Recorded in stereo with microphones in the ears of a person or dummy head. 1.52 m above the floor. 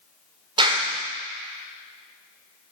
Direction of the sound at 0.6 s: 25° right (ahead or behind).